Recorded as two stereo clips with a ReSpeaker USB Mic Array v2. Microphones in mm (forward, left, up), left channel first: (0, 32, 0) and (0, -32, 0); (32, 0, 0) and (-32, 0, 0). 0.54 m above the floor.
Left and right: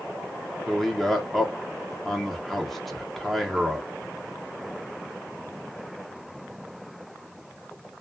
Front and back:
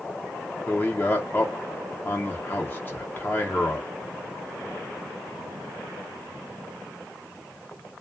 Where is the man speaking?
5° left, 0.9 m.